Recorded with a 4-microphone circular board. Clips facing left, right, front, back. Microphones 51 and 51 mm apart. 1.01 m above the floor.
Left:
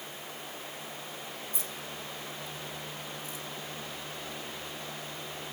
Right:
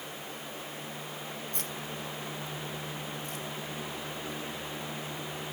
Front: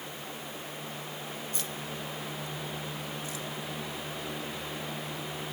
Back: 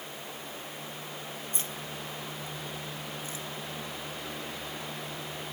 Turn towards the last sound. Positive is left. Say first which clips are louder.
# right 2 dB, front 1 dB
turn(degrees=-120)